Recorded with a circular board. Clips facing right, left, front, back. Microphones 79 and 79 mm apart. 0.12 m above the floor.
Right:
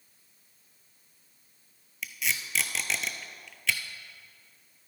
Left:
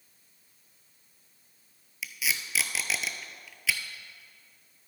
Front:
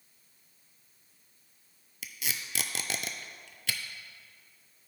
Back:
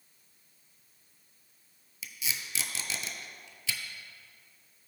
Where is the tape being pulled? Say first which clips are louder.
Even, even; 5° left, 0.6 m.